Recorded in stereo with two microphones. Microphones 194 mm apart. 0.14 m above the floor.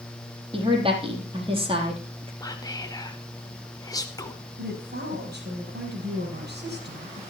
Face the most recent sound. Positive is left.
turn(degrees=-65)  # may be behind; listen again after turning